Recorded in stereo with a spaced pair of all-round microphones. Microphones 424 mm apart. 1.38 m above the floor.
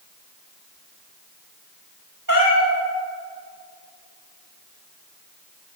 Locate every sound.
2.3 s a cat meowing: 50° right (ahead or behind), 1.7 m